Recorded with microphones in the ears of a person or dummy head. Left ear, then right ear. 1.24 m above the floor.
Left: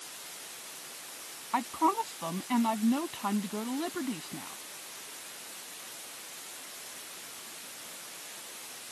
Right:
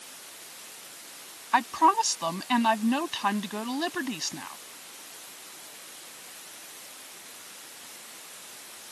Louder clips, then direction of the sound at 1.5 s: Right 7 dB; 65° right (ahead or behind).